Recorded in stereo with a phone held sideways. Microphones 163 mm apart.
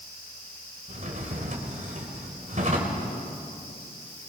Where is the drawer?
50° right (ahead or behind), 2.5 m.